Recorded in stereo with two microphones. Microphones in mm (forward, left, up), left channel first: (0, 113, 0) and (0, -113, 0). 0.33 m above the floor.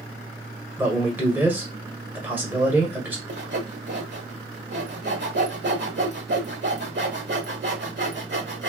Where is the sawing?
50° right (ahead or behind), 0.9 m.